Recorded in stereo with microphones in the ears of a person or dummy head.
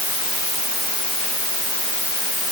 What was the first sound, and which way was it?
Only background noise.